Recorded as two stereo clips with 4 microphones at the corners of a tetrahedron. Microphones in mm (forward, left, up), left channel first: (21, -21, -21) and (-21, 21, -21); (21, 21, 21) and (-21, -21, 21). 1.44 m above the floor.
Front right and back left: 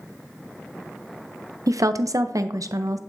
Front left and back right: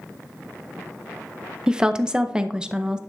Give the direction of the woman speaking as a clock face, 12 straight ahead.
7 o'clock.